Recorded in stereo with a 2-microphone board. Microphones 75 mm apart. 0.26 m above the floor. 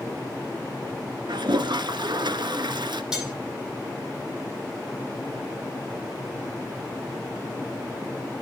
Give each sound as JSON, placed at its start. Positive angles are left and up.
{"t": 1.3, "sound": "a toilet flushing", "side_deg": -80, "distance_m": 0.9}
{"t": 3.1, "sound": "cutlery clinking", "side_deg": -5, "distance_m": 7.5}